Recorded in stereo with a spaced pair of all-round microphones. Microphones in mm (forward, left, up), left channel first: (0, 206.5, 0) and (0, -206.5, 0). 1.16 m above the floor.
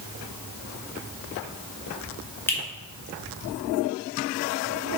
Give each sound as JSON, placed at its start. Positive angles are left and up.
{"t": 2.5, "sound": "a finger snap", "side_deg": 5, "distance_m": 2.0}